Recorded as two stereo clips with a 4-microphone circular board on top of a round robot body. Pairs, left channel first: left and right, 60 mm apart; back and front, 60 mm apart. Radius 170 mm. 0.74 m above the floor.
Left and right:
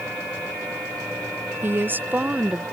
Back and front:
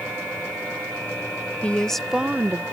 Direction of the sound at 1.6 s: 125° right.